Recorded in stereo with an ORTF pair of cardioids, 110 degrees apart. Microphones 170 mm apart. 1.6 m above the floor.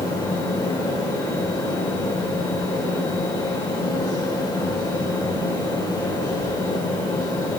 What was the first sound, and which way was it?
A fan, 25° left.